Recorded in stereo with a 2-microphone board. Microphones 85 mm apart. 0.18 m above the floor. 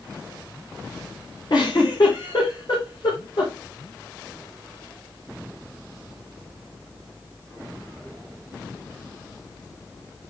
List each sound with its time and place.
1.5 s a giggle: 55° left (ahead or behind), 5.5 m